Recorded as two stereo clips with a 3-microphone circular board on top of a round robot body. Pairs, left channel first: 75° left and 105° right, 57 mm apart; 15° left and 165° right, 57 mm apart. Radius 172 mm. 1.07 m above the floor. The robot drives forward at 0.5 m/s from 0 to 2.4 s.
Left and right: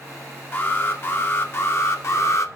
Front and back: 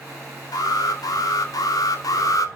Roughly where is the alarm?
Ahead.